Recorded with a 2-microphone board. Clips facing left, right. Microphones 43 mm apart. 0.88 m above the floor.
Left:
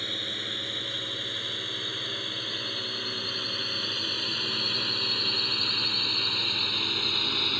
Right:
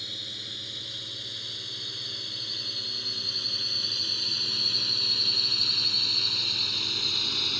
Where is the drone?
40° left (ahead or behind); by 7.6 s 20° left (ahead or behind).